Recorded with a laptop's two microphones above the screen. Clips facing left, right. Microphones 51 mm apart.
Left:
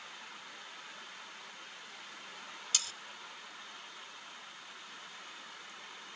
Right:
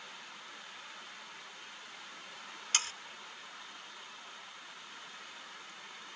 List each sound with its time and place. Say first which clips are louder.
2.7 s sawing: right 5 dB; 45° right (ahead or behind)